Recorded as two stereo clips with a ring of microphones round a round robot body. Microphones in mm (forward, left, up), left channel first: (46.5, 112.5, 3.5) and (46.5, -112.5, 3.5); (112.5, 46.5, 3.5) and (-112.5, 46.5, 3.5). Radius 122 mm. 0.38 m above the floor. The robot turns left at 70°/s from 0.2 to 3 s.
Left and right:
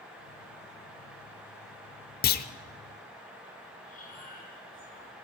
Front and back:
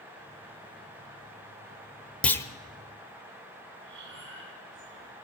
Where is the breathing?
150° left, 4 m.